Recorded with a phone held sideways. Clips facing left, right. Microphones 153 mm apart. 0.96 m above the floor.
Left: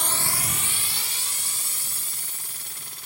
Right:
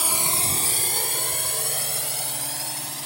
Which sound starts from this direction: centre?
A drone, at 0.0 s.